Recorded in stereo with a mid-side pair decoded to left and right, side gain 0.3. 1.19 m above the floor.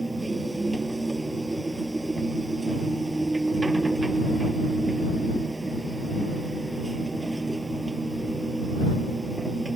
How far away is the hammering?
No hammering in this recording.